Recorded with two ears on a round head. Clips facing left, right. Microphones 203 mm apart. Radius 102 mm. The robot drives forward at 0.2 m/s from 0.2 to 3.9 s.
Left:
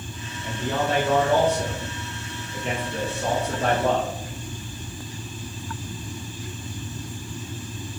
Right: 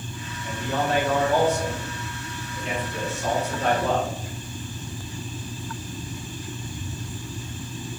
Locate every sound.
0.4 s a man speaking: 60° left (ahead or behind), 1.6 m; by 4.1 s 45° left (ahead or behind), 2 m